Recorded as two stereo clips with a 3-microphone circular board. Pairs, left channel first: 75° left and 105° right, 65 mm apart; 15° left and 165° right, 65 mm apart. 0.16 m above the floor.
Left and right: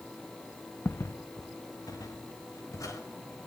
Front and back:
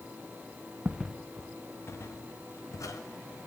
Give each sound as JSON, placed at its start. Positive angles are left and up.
{"t": 0.8, "sound": "footsteps", "azimuth_deg": 130, "distance_m": 0.8}